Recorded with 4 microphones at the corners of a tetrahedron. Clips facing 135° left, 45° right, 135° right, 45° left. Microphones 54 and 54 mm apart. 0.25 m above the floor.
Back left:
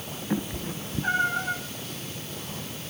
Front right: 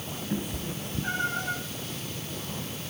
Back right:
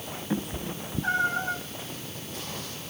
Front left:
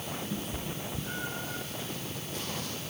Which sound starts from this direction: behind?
A cat meowing, at 0.3 s.